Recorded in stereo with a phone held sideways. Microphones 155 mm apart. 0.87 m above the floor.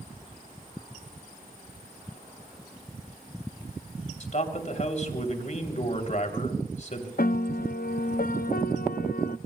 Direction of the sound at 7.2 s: 70° left (ahead or behind).